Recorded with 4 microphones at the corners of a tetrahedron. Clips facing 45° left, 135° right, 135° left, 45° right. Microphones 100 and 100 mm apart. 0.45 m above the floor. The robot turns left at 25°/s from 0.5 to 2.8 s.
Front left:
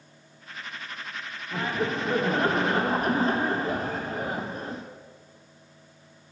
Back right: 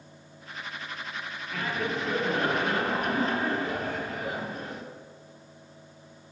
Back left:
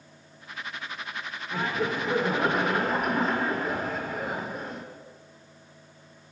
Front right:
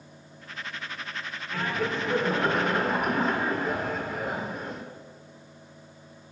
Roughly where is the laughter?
Left.